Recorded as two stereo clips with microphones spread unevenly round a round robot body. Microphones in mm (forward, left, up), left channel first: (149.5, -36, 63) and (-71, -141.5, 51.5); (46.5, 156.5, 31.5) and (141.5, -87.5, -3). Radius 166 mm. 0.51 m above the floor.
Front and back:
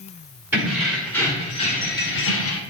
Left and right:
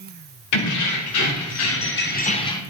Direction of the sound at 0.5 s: 125° left.